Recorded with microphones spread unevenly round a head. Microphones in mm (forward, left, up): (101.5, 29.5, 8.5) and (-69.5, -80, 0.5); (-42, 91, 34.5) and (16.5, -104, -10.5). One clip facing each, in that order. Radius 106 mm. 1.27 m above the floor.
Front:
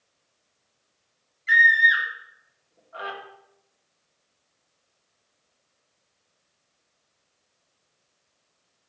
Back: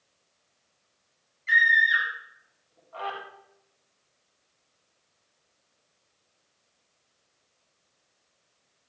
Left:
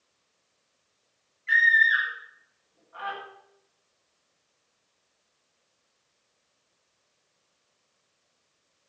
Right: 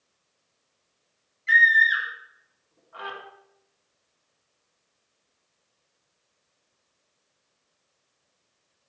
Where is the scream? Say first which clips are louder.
Front 3 dB, right 2 dB; 40° right, 4 m.